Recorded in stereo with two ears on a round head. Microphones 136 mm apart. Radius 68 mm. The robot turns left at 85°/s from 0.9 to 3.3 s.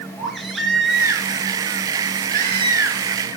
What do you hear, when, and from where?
0.2 s a baby crying: straight ahead, 5 m; by 3.1 s 175° left, 5 m